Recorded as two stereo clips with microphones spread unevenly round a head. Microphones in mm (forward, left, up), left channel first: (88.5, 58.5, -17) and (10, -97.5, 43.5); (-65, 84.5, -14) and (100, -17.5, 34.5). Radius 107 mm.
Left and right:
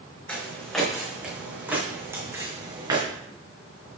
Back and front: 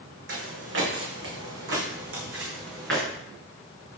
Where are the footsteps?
25° right, 2.5 m; by 3.0 s 60° right, 3 m.